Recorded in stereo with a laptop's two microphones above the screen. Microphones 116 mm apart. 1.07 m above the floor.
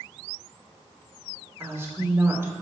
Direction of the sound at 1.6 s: 25° right (ahead or behind).